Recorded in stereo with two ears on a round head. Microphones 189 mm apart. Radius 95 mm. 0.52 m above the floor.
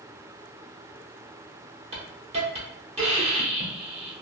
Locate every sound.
1.9 s a hiss: 30° right (ahead or behind), 0.8 m